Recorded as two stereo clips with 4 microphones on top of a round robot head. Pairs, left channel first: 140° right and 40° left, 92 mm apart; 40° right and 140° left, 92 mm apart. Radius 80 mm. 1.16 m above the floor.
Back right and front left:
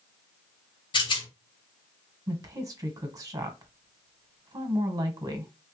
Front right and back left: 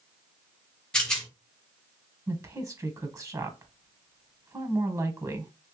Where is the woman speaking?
85° left, 1.2 m.